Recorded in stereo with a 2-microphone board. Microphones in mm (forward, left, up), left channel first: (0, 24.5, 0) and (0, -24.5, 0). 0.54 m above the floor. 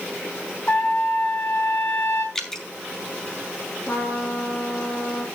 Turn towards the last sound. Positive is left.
turn(degrees=45)  # may be behind; listen again after turning